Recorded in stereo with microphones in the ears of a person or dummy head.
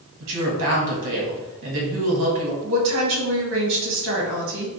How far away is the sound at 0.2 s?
About 1.6 m.